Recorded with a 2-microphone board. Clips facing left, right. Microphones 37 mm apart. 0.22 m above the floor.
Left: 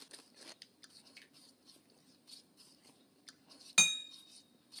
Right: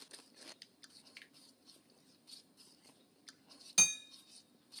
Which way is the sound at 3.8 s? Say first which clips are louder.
Left 5 dB; 45° left (ahead or behind).